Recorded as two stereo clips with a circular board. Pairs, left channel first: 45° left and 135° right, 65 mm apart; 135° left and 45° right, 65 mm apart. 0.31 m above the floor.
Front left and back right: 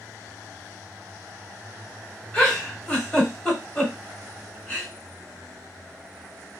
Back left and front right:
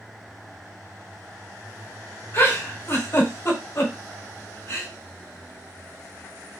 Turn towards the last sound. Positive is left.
turn(degrees=115)